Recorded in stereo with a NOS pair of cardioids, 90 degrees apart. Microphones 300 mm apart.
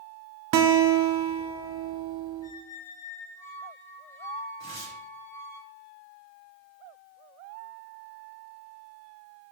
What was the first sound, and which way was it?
A guitar, 60° right.